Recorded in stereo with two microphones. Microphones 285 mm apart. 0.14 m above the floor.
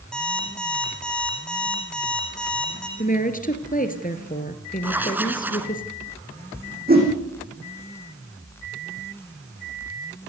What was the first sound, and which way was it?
An alarm clock, 5° left (ahead or behind).